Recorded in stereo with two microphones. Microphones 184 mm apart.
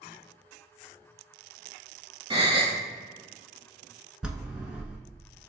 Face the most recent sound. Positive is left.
turn(degrees=-5)  # may be behind; listen again after turning